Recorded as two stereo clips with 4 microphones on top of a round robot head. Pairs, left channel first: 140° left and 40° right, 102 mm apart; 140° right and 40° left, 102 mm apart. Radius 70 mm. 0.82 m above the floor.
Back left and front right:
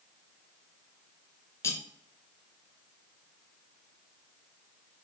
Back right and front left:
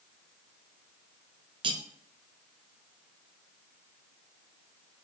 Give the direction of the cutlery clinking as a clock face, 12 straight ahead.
9 o'clock.